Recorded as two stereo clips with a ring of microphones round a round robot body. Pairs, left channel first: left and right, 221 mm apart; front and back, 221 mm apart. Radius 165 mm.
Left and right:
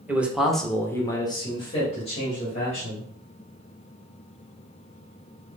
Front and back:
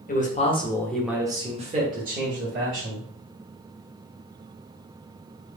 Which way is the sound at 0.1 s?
10° right.